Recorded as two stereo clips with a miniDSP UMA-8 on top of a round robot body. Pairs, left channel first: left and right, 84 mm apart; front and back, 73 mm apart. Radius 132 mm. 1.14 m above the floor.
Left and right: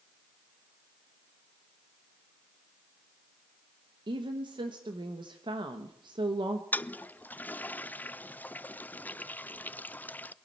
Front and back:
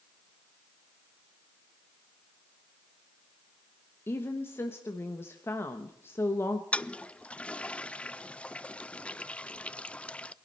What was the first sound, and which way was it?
A woman speaking, 60° right.